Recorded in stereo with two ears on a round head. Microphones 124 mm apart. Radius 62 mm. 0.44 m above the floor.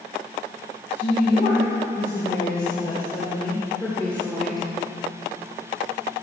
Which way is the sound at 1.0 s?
60° left (ahead or behind).